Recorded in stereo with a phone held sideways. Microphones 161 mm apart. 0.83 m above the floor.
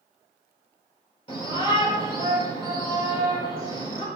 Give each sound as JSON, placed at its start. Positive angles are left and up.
{"t": 1.3, "sound": "a shout", "side_deg": 35, "distance_m": 3.0}